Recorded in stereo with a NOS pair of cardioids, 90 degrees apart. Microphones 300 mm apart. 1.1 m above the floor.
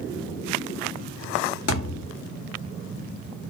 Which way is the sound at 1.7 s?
55° left.